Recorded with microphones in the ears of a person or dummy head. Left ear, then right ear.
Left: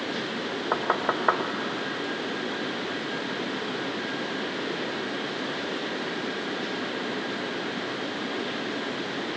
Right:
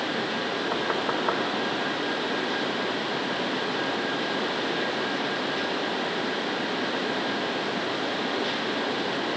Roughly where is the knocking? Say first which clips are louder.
Left 4 dB; left.